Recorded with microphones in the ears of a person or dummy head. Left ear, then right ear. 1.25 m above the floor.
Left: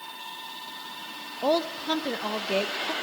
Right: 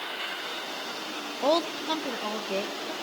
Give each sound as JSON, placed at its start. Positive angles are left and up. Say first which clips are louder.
{"t": 1.4, "sound": "a woman speaking", "louder": "even", "side_deg": -20, "distance_m": 0.9}